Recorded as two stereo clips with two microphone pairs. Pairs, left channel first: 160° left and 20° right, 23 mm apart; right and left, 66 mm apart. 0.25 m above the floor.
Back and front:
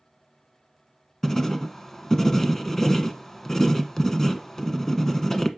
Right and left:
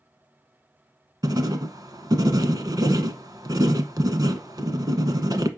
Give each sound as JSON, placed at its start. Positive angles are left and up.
{"t": 1.2, "sound": "writing", "azimuth_deg": 90, "distance_m": 0.8}